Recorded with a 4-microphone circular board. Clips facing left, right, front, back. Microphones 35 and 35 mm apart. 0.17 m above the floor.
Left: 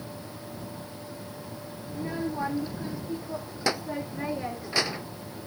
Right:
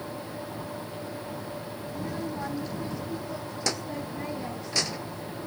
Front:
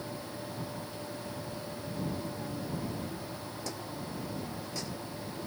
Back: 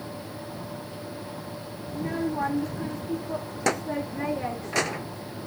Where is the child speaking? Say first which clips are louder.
Left 3 dB, back 10 dB; 160° left.